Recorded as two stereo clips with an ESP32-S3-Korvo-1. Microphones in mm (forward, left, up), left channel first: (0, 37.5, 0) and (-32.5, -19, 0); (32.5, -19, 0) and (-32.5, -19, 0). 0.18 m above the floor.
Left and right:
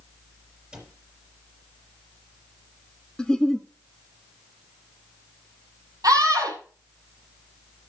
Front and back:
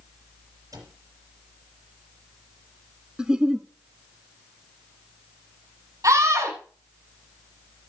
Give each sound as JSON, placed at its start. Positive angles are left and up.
{"t": 0.7, "sound": "a cupboard door", "azimuth_deg": 165, "distance_m": 5.0}
{"t": 3.2, "sound": "a giggle", "azimuth_deg": 120, "distance_m": 0.6}
{"t": 6.0, "sound": "a scream", "azimuth_deg": -145, "distance_m": 6.5}